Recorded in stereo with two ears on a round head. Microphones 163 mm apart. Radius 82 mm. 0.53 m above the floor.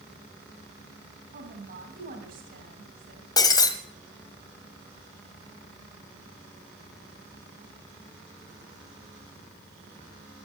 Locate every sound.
1.3 s a woman speaking: 50° right (ahead or behind), 3 m
3.4 s breaking glass: 25° left (ahead or behind), 1.3 m